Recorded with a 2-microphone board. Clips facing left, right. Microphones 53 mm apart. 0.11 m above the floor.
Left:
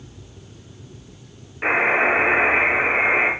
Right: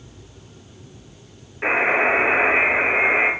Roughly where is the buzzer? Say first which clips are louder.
Even; centre.